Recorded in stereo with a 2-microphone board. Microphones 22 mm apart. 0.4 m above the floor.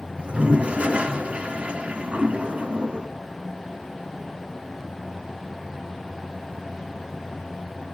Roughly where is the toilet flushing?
Right.